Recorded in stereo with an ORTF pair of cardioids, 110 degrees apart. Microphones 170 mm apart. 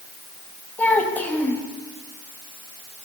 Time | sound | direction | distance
0.8 | a child speaking | 10° left | 6.5 m